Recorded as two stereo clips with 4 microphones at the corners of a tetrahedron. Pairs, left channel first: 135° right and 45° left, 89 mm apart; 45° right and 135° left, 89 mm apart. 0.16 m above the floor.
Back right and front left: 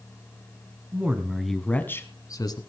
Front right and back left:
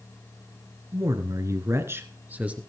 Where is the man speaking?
105° left, 1.8 m; by 2.6 s 150° right, 2.0 m.